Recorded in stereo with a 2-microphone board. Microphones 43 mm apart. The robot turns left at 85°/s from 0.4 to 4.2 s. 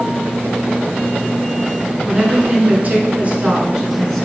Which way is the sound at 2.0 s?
5° right.